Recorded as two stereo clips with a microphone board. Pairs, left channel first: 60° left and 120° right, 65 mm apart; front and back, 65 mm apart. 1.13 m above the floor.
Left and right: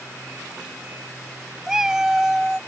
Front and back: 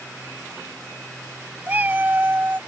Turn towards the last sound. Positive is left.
turn(degrees=170)